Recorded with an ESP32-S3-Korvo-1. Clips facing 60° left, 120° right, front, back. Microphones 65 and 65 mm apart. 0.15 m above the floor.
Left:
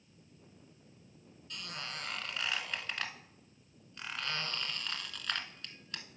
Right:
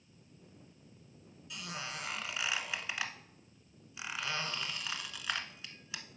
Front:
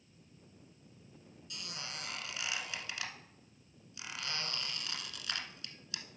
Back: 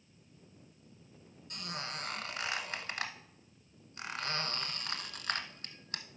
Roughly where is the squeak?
Behind.